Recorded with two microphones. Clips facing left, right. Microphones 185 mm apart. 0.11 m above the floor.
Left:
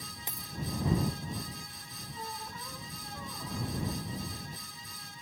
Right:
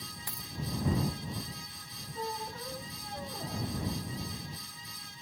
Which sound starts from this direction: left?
A dropped coin, at 0.3 s.